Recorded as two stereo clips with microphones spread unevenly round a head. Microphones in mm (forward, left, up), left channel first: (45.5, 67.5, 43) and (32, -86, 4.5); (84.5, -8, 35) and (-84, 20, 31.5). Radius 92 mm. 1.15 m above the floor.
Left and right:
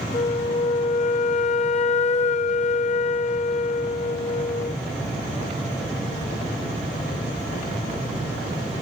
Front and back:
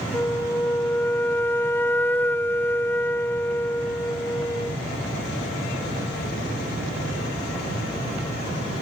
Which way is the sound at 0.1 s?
65° left.